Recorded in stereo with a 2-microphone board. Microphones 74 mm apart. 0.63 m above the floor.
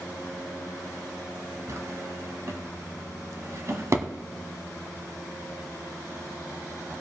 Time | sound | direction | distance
1.7 | a drawer | 50° right (ahead or behind) | 1.2 m